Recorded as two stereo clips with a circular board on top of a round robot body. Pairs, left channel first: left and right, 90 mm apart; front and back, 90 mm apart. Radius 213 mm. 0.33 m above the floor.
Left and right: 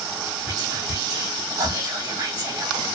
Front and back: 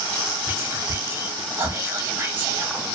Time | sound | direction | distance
0.5 | whispering | 125° right | 1.6 m